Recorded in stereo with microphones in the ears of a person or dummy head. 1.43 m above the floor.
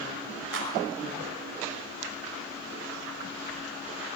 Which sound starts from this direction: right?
A clap, at 0.5 s.